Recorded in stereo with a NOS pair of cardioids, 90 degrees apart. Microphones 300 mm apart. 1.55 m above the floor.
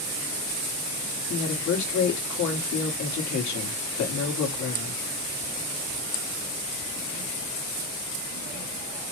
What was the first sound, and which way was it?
A woman speaking, 65° left.